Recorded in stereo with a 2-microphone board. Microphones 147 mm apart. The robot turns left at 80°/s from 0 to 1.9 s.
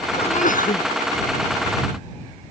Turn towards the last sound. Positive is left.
turn(degrees=0)